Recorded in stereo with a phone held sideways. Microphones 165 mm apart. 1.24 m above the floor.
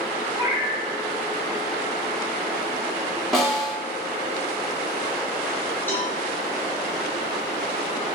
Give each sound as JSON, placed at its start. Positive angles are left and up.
{"t": 0.3, "sound": "a cat meowing", "side_deg": 50, "distance_m": 1.7}
{"t": 3.3, "sound": "a snare drum", "side_deg": 0, "distance_m": 0.8}
{"t": 5.9, "sound": "a cowbell", "side_deg": 10, "distance_m": 0.6}